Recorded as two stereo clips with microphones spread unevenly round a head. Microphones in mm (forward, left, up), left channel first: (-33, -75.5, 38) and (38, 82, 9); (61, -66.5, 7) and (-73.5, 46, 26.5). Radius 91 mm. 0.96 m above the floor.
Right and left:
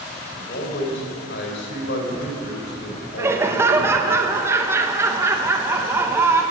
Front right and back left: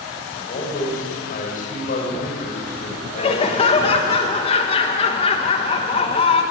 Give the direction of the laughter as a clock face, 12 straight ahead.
12 o'clock.